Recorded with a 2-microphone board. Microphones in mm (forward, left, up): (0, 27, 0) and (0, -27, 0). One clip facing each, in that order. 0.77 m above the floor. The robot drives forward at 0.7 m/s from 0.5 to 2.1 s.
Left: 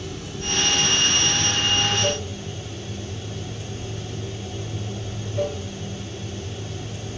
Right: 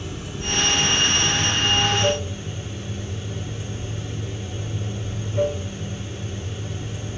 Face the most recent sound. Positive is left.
turn(degrees=-20)  # may be behind; listen again after turning